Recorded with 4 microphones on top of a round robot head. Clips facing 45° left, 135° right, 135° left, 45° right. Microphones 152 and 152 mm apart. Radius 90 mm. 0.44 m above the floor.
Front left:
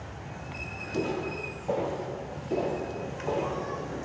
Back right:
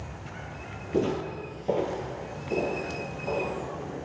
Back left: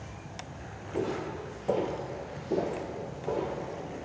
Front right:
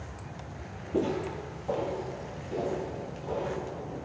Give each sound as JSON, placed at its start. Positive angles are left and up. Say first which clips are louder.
{"t": 0.9, "sound": "footsteps", "louder": "back right 3 dB, front right 3 dB", "azimuth_deg": -100, "distance_m": 0.7}